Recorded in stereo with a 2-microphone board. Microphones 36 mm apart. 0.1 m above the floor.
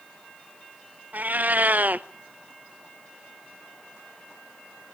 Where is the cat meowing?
55° right (ahead or behind), 0.5 m.